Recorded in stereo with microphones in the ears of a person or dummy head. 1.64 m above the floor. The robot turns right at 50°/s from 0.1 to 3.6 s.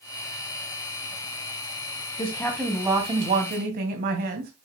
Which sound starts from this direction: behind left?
A woman speaking, at 2.2 s.